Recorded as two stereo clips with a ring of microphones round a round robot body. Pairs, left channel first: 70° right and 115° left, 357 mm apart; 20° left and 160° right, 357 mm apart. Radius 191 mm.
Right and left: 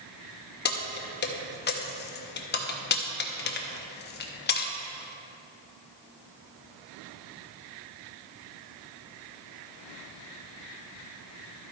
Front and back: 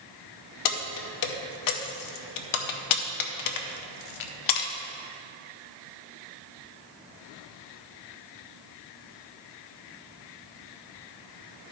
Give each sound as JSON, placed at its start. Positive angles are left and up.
{"t": 0.7, "sound": "keys jangling", "azimuth_deg": -5, "distance_m": 0.8}